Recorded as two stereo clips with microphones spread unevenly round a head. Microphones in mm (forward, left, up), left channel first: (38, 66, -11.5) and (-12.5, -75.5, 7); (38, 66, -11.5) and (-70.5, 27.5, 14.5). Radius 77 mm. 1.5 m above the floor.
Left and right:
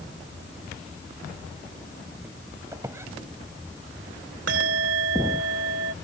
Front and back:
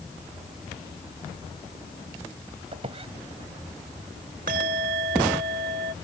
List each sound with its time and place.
2.7 s a squeak: straight behind
4.5 s a bell: 120° right